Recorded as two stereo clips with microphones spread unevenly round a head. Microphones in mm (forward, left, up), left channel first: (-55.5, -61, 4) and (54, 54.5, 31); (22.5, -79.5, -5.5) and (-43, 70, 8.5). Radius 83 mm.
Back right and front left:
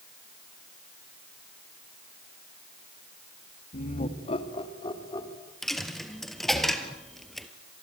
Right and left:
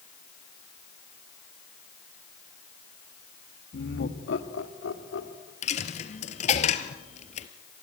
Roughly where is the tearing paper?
No tearing paper in this recording.